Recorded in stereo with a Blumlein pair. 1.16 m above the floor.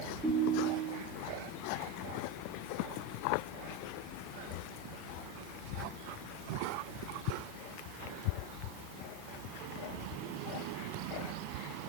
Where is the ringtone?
10° right, 8 m.